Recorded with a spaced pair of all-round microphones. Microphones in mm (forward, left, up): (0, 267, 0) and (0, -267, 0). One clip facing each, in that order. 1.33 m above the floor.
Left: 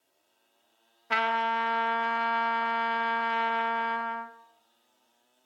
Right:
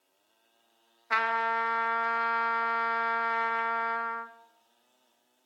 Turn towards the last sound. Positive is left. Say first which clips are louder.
# left 2 dB
turn(degrees=55)  # may be behind; listen again after turning